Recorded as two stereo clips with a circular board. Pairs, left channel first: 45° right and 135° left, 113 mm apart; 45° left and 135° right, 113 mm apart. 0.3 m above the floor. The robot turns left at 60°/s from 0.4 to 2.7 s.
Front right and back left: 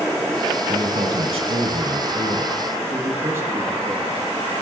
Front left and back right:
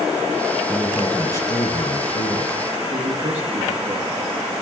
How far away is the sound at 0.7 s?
About 2.5 m.